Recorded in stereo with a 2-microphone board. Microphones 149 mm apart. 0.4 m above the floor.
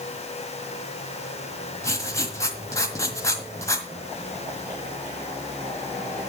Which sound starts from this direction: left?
Writing, at 1.8 s.